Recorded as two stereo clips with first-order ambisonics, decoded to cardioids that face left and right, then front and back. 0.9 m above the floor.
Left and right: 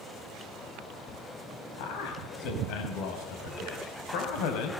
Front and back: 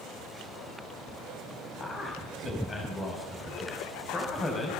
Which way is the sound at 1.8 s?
75° left.